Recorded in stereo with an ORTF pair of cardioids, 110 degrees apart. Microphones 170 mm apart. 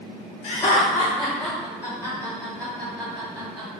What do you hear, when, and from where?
0.4 s laughter: 40° left, 0.7 m; by 3.8 s 30° right, 2 m